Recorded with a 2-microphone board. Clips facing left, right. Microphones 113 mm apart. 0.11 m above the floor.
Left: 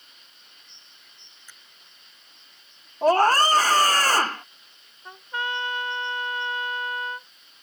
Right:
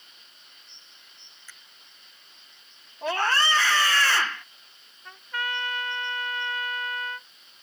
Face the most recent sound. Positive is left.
turn(degrees=25)  # may be behind; listen again after turning